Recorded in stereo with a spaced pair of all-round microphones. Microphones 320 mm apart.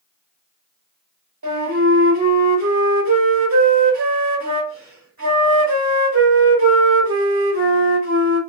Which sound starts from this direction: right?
A flute, at 1.4 s.